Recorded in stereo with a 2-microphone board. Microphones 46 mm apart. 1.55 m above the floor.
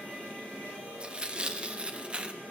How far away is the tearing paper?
About 0.6 m.